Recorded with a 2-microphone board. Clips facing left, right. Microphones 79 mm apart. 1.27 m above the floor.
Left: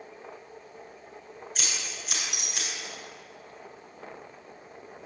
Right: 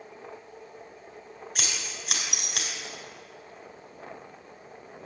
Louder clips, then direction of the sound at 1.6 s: Right 1 dB; 70° right (ahead or behind).